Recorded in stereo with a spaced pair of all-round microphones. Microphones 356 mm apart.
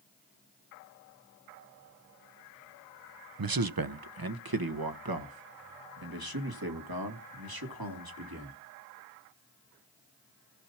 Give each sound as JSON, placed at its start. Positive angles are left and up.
{"t": 3.4, "sound": "a man speaking", "side_deg": -75, "distance_m": 0.6}